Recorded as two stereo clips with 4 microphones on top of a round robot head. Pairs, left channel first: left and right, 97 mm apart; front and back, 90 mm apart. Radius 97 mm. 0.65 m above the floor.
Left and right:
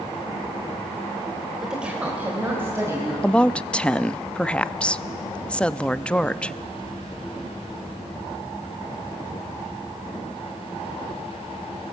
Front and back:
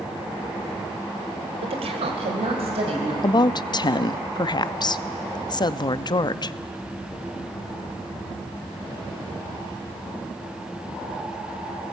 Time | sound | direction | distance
1.6 | a woman speaking | 175° right | 3 m
3.2 | a woman speaking | 15° left | 0.7 m